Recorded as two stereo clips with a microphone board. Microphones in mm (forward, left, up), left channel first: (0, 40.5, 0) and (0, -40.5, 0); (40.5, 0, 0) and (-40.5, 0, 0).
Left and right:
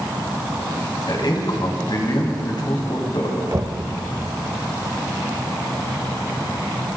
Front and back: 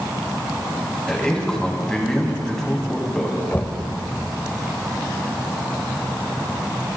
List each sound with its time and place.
1.1 s a man speaking: 80° left, 2.5 m
3.5 s knocking: 65° right, 1.1 m